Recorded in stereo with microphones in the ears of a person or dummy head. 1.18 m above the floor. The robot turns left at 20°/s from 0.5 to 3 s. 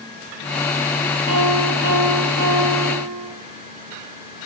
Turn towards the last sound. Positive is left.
turn(degrees=-100)